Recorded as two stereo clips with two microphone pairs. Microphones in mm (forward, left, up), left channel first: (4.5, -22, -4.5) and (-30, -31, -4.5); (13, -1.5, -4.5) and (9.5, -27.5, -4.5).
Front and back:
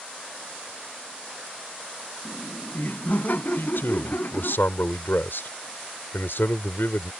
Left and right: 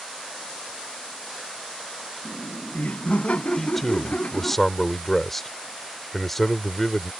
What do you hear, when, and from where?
2.2 s laughter: 55° left; by 4.6 s 45° left
3.6 s a man speaking: 5° left